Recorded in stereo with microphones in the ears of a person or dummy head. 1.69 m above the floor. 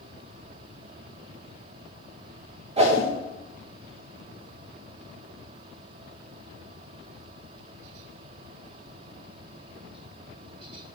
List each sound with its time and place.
2.8 s a whoosh: 30° right (ahead or behind), 1.3 m